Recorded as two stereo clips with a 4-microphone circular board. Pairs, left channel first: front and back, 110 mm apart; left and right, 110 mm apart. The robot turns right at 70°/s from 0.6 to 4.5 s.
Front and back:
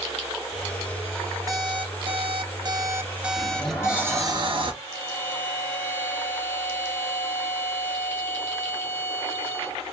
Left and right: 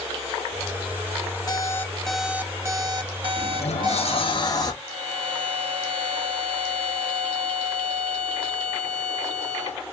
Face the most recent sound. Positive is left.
turn(degrees=-70)